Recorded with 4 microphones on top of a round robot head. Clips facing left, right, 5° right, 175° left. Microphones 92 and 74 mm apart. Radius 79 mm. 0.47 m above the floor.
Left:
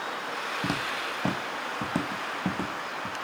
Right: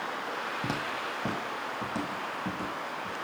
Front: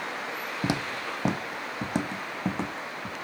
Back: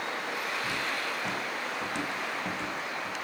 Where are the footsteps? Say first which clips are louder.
Left 2 dB, front 2 dB; 10° left, 1.1 m; by 3.1 s 45° left, 2.5 m.